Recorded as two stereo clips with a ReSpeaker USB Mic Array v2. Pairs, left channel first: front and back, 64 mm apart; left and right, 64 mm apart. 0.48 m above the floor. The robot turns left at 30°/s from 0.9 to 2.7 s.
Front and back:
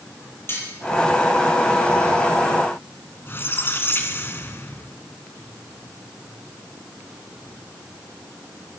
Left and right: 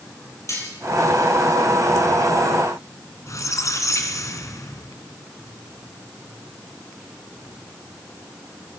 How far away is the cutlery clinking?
About 9 m.